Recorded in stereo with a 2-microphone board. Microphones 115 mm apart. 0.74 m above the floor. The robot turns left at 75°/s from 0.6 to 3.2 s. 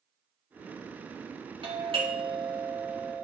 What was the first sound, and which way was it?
A doorbell, 80° right.